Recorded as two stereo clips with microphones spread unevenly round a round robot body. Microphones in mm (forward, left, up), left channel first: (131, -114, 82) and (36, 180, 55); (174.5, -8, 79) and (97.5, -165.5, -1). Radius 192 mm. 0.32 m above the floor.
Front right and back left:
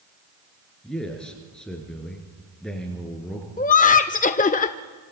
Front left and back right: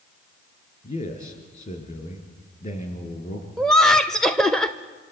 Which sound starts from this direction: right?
Laughter, at 3.6 s.